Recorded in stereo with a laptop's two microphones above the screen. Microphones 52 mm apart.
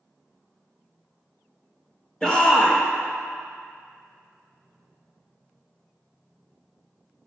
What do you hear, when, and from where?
2.2 s a shout: 15° left (ahead or behind), 0.6 m